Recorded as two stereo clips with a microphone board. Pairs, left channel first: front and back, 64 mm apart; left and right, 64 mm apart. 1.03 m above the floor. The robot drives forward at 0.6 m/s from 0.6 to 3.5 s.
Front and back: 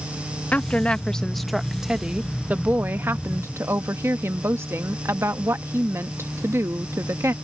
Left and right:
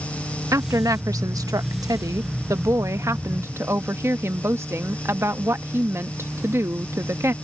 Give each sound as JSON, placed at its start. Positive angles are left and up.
{"t": 0.5, "sound": "a woman speaking", "azimuth_deg": -65}